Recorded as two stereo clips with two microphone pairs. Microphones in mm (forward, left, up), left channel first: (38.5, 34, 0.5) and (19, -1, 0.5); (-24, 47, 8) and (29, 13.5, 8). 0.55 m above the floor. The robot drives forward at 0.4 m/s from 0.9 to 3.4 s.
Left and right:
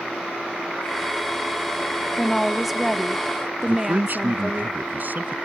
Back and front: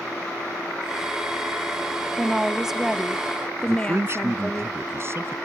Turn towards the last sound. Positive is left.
turn(degrees=-80)